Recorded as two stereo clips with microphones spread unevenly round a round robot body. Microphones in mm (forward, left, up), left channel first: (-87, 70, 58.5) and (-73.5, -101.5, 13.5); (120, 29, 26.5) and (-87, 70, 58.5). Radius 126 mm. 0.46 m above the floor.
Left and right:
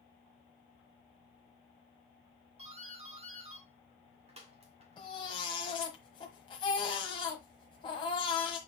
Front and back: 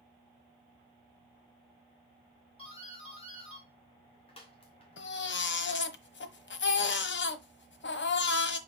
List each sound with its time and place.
2.6 s a doorbell: 60° right, 2.5 m
5.0 s a baby crying: 20° left, 1.2 m